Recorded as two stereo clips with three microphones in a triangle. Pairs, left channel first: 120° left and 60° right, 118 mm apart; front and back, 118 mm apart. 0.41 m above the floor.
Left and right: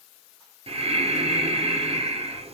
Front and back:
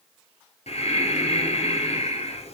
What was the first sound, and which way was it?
Breathing, 25° right.